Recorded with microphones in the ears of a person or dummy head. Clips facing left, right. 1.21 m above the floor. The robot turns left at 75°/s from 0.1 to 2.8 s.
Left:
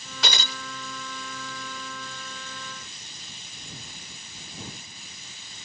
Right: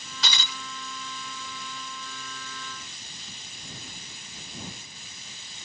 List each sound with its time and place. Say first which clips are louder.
0.2 s breaking glass: left 4 dB; 45° left (ahead or behind); by 0.6 s 20° left (ahead or behind)